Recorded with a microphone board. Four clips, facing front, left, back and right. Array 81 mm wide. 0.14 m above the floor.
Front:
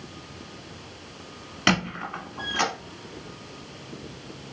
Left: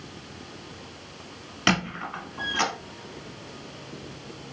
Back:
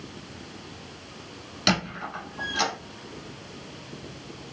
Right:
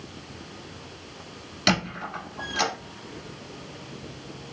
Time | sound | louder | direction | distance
1.7 | a squeak | even, front 2 dB | 40° left | 1.1 m